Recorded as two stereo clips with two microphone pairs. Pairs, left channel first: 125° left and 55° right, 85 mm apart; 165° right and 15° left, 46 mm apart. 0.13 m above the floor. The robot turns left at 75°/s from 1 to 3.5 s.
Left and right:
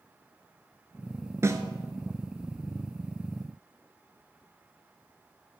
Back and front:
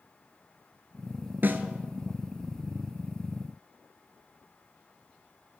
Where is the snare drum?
10° right, 0.7 m; by 1.6 s 25° right, 0.7 m.